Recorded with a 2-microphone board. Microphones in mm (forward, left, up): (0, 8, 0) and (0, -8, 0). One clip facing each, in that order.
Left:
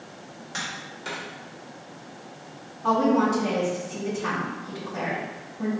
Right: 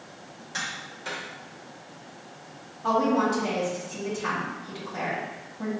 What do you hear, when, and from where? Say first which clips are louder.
0.5 s tapping: even; 5° left (ahead or behind), 1.4 m
2.8 s a woman speaking: left 2 dB; 15° right (ahead or behind), 1.8 m